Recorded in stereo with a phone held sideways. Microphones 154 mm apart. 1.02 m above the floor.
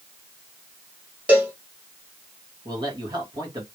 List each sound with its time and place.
1.3 s a cowbell: 10° right (ahead or behind), 1.3 m
2.6 s a man speaking: 30° right (ahead or behind), 1.9 m